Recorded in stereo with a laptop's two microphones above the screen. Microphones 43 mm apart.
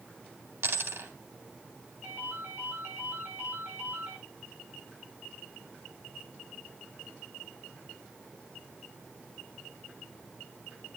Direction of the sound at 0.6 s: 70° right (ahead or behind).